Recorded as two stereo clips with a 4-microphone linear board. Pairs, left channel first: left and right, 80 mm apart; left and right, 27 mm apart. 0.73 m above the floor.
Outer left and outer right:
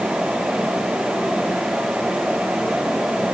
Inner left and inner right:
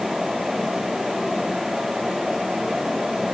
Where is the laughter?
No laughter in this recording.